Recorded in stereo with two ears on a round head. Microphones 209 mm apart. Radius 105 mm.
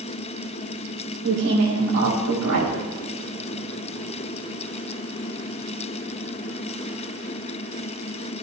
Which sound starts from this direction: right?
A woman speaking, at 1.2 s.